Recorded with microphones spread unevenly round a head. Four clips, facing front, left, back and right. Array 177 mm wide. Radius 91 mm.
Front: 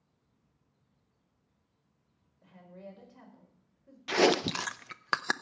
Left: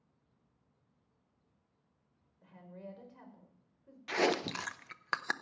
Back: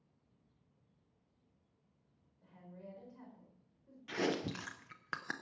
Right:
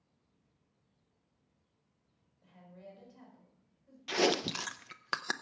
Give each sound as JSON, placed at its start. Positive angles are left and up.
{"t": 2.4, "sound": "a woman speaking", "azimuth_deg": 50, "distance_m": 4.5}
{"t": 4.1, "sound": "chewing", "azimuth_deg": -10, "distance_m": 0.5}